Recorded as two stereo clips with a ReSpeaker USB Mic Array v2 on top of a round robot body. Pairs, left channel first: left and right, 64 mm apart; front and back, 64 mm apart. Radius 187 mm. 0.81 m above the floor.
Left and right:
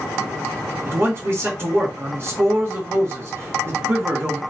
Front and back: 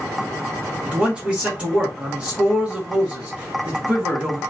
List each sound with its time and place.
0.9 s a man speaking: 115° right, 1.2 m